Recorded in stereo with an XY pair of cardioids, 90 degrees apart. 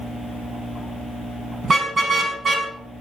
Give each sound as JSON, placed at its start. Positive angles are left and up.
{"t": 1.6, "sound": "a car horn", "azimuth_deg": -40, "distance_m": 5.5}